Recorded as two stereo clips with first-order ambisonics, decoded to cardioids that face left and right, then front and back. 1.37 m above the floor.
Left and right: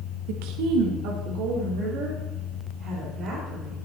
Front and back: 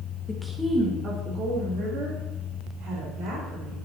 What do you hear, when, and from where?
0.3 s a woman speaking: 75° right, 1.2 m; by 3.8 s 140° right, 5 m